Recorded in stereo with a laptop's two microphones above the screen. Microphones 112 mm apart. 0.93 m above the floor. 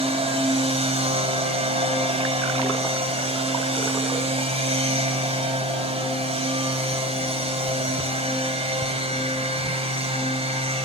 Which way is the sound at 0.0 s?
70° right (ahead or behind).